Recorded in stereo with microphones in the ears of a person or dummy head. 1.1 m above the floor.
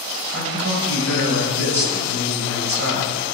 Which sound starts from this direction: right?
A man speaking, at 0.3 s.